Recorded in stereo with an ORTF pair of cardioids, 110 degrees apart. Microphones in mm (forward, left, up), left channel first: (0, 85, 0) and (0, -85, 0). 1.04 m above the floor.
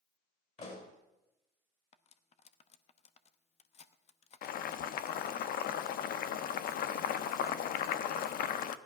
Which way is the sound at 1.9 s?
40° left.